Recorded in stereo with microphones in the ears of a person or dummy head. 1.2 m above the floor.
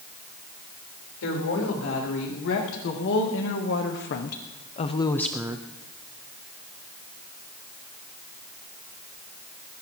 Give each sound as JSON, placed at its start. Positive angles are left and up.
{"t": 1.2, "sound": "a woman speaking", "side_deg": 75, "distance_m": 3.5}